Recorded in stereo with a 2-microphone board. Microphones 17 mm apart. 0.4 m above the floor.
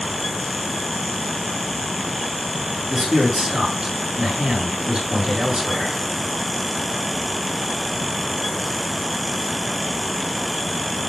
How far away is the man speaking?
About 5.5 m.